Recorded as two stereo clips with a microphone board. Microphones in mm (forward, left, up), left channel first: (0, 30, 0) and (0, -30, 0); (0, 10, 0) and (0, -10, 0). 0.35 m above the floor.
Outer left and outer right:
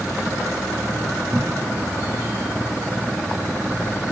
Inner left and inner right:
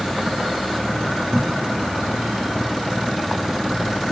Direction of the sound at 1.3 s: 50° right (ahead or behind).